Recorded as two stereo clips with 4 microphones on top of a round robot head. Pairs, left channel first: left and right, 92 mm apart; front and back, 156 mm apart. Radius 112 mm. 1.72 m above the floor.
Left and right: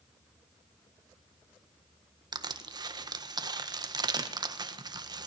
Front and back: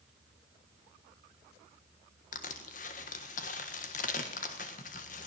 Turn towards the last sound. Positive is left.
turn(degrees=-50)